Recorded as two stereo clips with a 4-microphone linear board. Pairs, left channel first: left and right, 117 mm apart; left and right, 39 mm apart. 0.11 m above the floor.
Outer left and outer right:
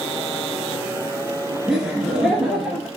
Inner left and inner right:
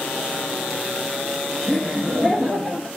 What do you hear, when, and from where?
1.7 s laughter: 5° right (ahead or behind), 1.3 m